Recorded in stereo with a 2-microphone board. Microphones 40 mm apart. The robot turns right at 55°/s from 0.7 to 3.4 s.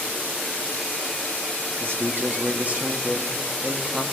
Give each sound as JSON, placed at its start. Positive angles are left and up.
{"t": 1.8, "sound": "a man speaking", "azimuth_deg": -90, "distance_m": 1.6}